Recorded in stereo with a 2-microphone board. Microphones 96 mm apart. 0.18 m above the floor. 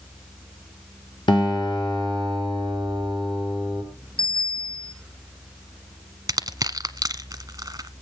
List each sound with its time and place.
1.3 s a guitar: 55° left (ahead or behind), 4 m
4.2 s a bicycle bell: 55° left (ahead or behind), 6.5 m
6.3 s crushing: 35° right (ahead or behind), 0.9 m